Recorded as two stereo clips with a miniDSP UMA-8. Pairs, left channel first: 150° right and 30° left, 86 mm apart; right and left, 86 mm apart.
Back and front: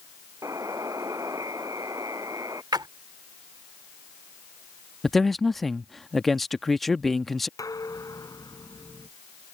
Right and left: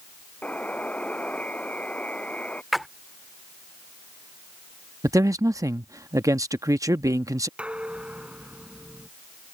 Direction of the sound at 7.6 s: 165° left.